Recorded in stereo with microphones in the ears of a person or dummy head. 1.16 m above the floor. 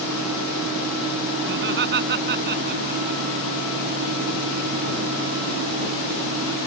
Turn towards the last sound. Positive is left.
turn(degrees=-50)  # may be behind; listen again after turning